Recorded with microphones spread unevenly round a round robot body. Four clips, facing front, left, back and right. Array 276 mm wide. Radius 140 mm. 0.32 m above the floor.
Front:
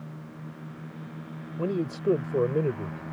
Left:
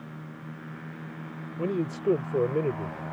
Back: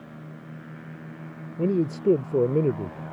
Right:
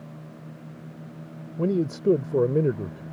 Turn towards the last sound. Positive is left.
turn(degrees=-140)